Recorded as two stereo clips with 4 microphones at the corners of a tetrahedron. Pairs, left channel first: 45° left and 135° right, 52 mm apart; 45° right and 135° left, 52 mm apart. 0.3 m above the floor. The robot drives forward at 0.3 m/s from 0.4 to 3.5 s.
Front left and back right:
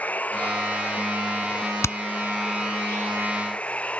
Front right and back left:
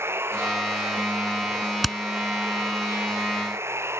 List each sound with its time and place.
0.0 s running water: 105° left; by 4.0 s 110° left
1.8 s hammering: 45° left; by 2.0 s 50° left